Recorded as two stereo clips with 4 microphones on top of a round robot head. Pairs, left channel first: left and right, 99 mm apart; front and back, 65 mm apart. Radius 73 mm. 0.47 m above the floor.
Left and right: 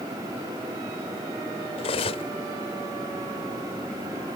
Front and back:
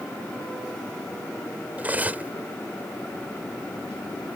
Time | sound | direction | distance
1.8 | cutlery clinking | 115° left | ?